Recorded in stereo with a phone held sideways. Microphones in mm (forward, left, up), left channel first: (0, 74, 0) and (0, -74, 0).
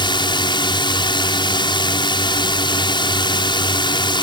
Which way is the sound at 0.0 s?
30° left (ahead or behind).